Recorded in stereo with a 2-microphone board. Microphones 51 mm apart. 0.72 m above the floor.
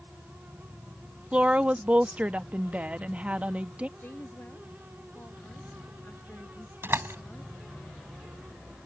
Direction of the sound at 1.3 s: 30° right (ahead or behind).